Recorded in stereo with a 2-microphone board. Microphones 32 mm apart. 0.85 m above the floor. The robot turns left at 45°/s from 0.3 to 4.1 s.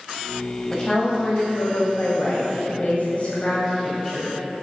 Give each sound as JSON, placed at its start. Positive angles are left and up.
{"t": 0.7, "sound": "a woman speaking", "azimuth_deg": 165, "distance_m": 4.0}